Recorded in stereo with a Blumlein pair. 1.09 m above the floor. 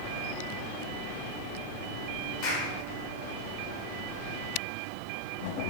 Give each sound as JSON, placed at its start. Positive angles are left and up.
{"t": 2.4, "sound": "a clap", "azimuth_deg": 40, "distance_m": 4.0}